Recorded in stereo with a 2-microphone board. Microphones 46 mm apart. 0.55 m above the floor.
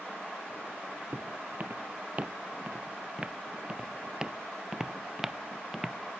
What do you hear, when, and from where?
1.1 s footsteps: 45° right (ahead or behind); by 6.0 s 5° right (ahead or behind)